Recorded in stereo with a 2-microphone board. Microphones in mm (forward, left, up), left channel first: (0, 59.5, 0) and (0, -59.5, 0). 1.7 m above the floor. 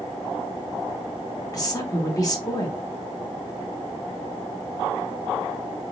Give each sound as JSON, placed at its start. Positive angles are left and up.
{"t": 1.5, "sound": "a woman speaking", "side_deg": 30, "distance_m": 0.9}